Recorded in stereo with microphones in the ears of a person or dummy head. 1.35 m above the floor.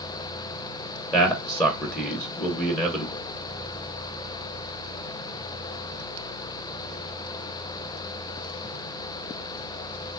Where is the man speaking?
10° left (ahead or behind), 0.6 m.